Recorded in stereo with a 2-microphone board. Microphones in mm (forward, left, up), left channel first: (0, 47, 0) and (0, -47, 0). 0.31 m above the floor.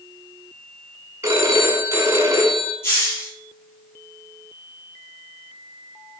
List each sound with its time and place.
1.2 s a phone ringing: 35° right (ahead or behind), 1.9 m
2.8 s a hiss: 25° left (ahead or behind), 4.5 m